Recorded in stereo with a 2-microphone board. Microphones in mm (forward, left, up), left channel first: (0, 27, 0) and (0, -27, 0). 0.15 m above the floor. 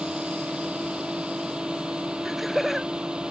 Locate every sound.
0.0 s a drone: 15° right (ahead or behind)
2.2 s laughter: 5° right (ahead or behind)